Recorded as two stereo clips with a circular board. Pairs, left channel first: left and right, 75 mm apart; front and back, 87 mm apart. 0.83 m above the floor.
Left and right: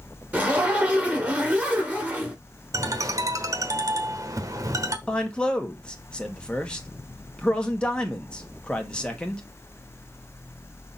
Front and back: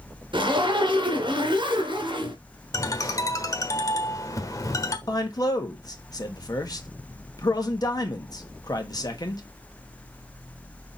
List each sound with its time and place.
0.3 s a zipper: 160° right, 2.5 m
2.7 s a ringtone: 50° right, 1.1 m
5.1 s a man speaking: 15° left, 1.3 m